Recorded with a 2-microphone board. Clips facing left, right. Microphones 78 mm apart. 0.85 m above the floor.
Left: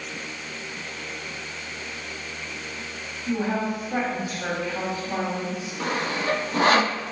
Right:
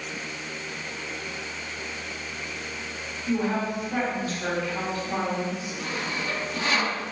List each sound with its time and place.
3.3 s a woman speaking: 10° left (ahead or behind), 2.5 m
5.8 s sawing: 55° left (ahead or behind), 0.6 m